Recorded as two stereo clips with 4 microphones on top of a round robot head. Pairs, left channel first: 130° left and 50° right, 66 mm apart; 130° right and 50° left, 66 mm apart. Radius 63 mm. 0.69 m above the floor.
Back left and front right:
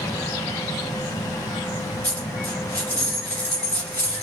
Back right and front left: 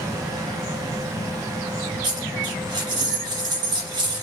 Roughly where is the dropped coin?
Ahead left.